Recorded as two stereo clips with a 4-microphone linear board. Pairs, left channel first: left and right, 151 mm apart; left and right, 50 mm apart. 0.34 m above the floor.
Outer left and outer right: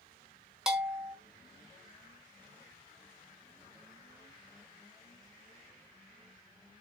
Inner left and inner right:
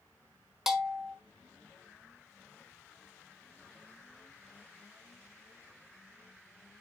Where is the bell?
5° right (ahead or behind), 1.1 m.